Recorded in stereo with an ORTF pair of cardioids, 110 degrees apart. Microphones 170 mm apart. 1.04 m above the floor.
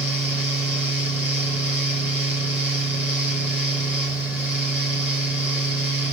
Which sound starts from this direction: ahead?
A fan, at 0.0 s.